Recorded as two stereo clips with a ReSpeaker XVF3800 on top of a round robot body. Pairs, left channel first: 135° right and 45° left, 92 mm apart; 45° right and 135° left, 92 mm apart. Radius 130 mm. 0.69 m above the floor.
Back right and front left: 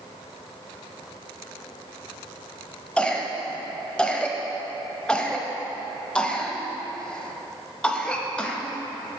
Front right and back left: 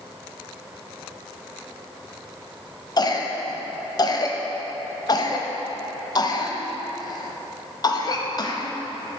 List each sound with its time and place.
3.0 s a cough: 60° right, 1.0 m